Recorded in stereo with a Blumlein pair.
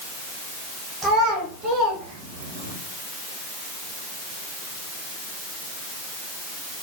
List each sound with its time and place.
1.0 s a child speaking: 15° right, 1.1 m; by 2.8 s 70° right, 0.8 m